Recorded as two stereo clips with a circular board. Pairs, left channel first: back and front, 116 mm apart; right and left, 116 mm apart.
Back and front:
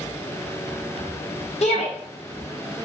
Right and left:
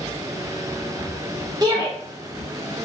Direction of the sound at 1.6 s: 145° left.